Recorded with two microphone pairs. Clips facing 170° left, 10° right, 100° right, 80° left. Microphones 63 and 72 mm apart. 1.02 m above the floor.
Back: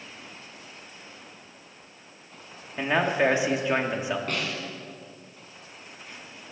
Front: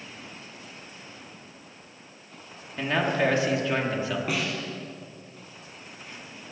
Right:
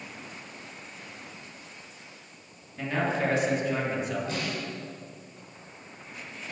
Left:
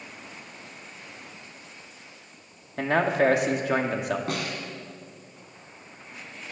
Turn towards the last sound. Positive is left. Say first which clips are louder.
# front 2 dB, left 1 dB
turn(degrees=70)